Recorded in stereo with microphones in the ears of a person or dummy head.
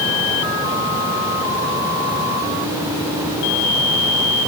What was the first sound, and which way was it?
Only background noise.